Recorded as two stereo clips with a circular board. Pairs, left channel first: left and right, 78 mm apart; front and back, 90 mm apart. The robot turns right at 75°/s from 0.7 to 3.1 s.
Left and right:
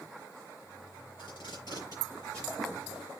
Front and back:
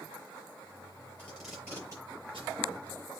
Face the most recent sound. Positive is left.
turn(degrees=-145)